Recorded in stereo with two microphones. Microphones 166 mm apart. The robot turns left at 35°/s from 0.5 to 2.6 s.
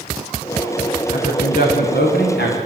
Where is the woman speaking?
140° left, 8 m; by 2.6 s 85° left, 8 m.